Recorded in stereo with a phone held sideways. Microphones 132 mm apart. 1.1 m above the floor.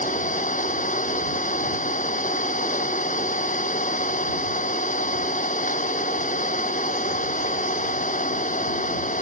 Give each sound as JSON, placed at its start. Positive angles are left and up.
{"t": 0.0, "sound": "an engine running", "side_deg": 75}